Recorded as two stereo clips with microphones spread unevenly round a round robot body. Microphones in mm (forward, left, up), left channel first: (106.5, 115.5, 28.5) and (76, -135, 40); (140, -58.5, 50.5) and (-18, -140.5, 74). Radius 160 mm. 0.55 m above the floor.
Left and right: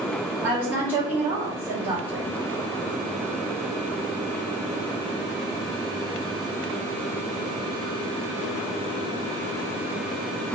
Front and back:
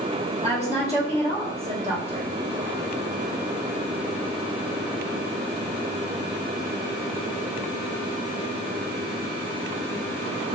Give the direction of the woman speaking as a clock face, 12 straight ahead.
6 o'clock.